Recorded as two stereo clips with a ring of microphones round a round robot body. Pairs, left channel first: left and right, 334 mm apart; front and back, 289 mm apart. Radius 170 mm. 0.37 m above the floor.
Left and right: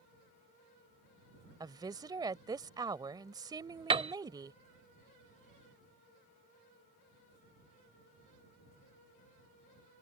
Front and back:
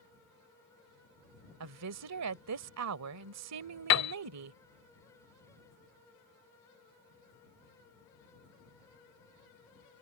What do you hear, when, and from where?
1.6 s a woman speaking: 165° right
3.9 s a piano: 20° right